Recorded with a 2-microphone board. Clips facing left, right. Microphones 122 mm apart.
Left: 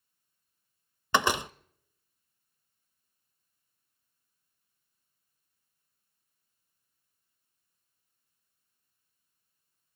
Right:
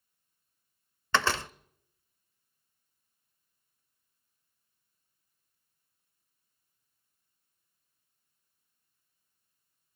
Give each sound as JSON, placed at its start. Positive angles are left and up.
{"t": 1.1, "sound": "a door slam", "side_deg": 15, "distance_m": 0.5}